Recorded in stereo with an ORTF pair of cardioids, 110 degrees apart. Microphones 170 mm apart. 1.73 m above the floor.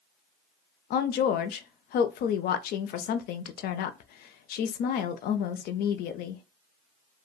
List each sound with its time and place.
0.9 s a woman speaking: 65° left, 0.6 m